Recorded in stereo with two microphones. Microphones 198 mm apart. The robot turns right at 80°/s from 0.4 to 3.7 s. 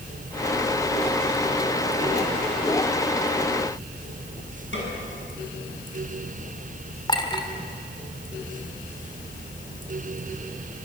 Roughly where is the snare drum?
Left.